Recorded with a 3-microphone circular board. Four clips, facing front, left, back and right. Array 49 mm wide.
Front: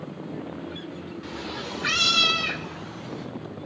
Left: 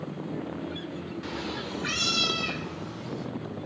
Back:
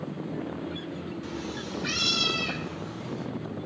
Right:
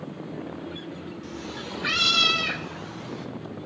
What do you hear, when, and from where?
1.2 s a cat meowing: 75° left, 0.6 m; by 3.3 s 55° right, 2.5 m